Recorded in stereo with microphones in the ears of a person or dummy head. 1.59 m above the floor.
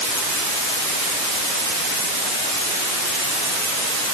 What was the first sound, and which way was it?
Only background noise.